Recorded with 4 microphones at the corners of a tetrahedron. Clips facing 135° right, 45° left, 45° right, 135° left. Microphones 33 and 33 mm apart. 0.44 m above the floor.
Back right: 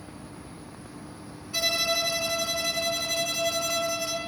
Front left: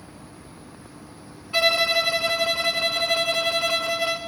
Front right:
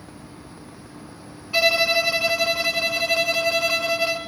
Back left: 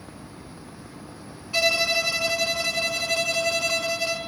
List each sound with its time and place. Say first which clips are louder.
1.5 s a violin: front left 6 dB, front right 3 dB; 15° left, 1.4 m